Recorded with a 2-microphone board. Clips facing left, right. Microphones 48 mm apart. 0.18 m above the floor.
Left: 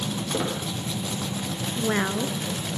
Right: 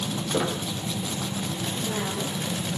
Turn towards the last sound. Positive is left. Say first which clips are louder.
# left 8 dB
turn(degrees=65)  # may be behind; listen again after turning